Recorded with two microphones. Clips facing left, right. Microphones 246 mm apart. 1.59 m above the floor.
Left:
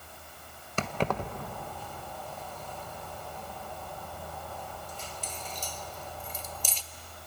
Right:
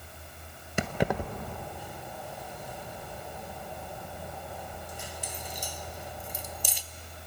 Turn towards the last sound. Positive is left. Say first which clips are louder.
# right 2 dB
turn(degrees=-10)  # may be behind; listen again after turning